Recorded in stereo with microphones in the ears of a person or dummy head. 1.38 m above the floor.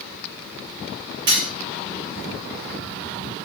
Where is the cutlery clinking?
25° right (ahead or behind), 1.0 m.